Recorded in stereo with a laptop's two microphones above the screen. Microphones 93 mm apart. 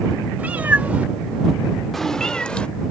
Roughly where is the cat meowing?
Centre.